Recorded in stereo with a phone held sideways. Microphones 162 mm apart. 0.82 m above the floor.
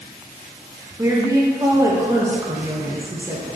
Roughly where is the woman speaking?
Centre.